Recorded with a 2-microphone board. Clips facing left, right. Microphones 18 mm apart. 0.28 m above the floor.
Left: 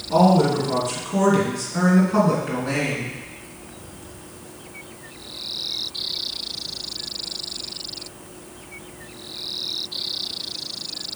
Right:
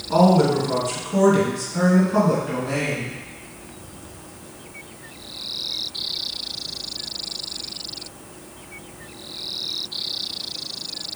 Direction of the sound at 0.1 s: 20° right (ahead or behind).